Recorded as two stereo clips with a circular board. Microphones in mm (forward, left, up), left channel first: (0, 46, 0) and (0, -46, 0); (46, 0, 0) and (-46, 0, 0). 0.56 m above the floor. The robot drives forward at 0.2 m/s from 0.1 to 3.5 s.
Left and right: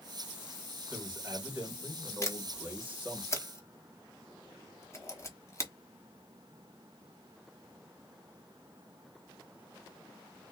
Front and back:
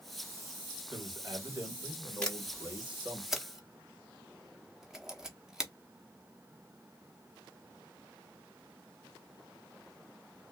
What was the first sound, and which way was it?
A man speaking, 155° right.